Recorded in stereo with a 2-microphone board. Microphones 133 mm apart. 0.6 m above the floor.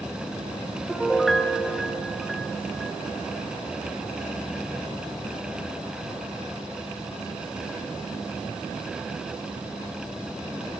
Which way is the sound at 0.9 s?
Centre (ahead or behind).